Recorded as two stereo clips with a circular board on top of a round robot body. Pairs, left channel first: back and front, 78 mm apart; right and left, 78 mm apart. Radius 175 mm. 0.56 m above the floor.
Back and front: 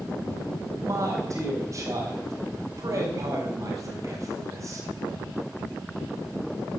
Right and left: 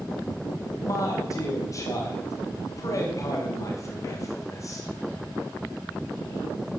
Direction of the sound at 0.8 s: 45° right.